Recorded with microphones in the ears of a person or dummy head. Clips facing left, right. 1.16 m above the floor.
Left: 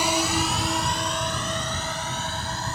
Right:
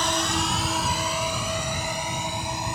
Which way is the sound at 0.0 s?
10° left (ahead or behind).